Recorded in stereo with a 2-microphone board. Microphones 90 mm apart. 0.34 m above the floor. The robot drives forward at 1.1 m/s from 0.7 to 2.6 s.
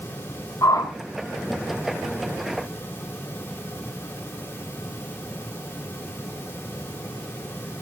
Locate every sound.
0.6 s a whoosh: 40° left (ahead or behind), 1.8 m; by 0.9 s 45° left (ahead or behind), 1.8 m